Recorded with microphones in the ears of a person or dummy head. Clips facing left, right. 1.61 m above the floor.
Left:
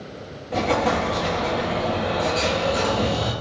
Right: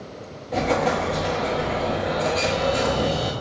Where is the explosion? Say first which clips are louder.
Even; centre (ahead or behind), 1.2 m.